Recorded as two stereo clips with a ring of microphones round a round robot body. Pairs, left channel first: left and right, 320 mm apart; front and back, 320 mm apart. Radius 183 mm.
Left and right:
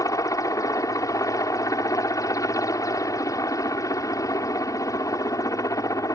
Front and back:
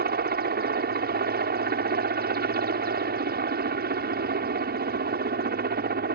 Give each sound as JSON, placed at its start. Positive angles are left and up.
{"t": 0.0, "sound": "a helicopter", "azimuth_deg": 160}